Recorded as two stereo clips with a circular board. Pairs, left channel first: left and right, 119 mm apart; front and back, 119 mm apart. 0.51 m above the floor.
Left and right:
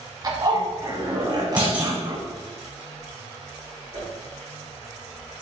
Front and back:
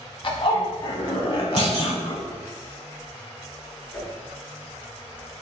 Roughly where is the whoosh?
Ahead right.